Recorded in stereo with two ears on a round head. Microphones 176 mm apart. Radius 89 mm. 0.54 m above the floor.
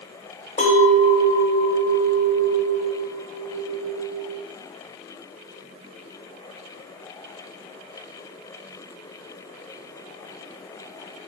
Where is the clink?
35° left (ahead or behind), 1.3 m.